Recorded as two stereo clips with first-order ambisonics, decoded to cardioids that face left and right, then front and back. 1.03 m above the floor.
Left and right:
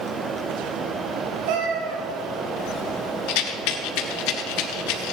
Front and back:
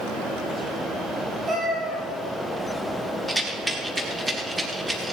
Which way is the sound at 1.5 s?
100° right.